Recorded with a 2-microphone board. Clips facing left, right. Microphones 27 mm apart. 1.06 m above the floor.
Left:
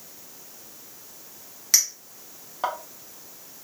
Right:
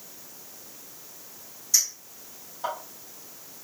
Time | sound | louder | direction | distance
1.7 | a clink | left 3 dB | 70° left (ahead or behind) | 0.9 m